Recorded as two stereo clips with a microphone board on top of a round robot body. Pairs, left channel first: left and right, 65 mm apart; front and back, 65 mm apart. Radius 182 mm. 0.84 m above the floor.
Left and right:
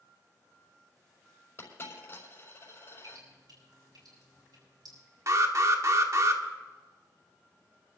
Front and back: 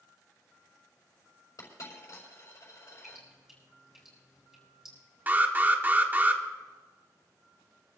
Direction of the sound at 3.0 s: 95° right.